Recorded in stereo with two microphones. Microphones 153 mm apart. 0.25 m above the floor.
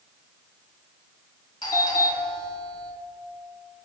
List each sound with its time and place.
1.6 s a doorbell: 30° left (ahead or behind), 1.7 m